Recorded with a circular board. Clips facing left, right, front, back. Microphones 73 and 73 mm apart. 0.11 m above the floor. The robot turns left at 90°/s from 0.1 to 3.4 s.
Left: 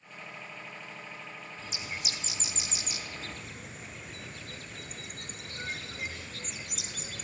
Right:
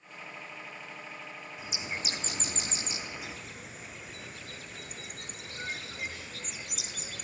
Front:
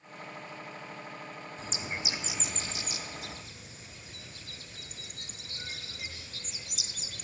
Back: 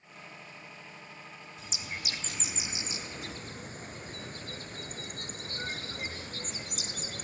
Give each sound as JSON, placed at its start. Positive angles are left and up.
{"t": 1.6, "sound": "a bird", "azimuth_deg": -15, "distance_m": 0.6}